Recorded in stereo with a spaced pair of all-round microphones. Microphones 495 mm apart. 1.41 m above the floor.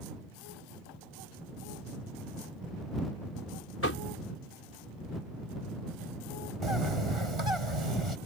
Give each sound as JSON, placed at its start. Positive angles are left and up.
{"t": 3.8, "sound": "knocking", "side_deg": 25}
{"t": 6.6, "sound": "a bird", "side_deg": -85}